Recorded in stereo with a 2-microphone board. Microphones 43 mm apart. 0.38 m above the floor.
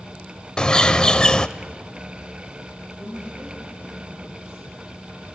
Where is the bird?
20° left (ahead or behind), 0.6 m.